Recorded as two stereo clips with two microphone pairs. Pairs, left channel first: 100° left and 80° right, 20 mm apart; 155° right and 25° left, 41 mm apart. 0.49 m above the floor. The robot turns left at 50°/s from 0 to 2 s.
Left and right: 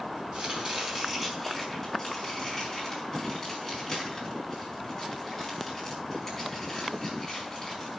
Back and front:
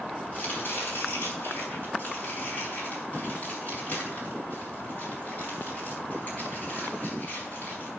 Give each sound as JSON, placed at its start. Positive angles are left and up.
{"t": 0.3, "sound": "chopping", "azimuth_deg": -110, "distance_m": 5.5}